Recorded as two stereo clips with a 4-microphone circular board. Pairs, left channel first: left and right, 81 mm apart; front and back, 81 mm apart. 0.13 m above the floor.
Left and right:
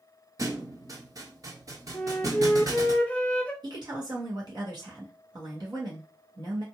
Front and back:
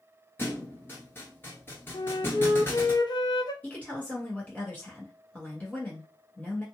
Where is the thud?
55° right, 1.0 m.